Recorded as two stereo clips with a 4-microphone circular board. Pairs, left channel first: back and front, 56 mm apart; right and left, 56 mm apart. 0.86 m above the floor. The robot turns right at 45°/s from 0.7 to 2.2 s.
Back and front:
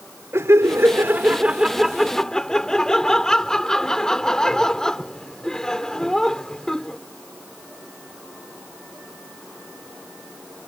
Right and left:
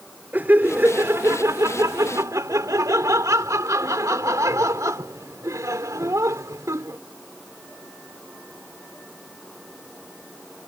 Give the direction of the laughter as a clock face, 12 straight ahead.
11 o'clock.